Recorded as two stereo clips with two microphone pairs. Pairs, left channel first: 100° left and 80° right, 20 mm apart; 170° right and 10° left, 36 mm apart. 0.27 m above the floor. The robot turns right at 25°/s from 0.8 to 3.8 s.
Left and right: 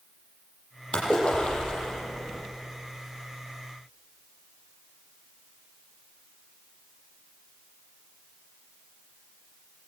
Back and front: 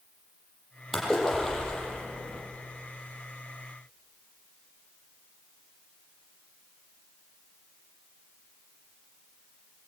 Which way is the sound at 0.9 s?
110° left.